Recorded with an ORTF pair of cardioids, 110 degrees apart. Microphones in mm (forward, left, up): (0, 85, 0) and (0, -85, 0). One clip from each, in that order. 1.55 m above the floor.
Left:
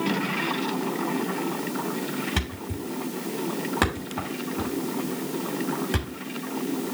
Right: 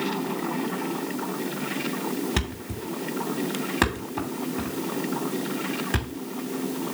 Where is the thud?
5° right, 2.5 m.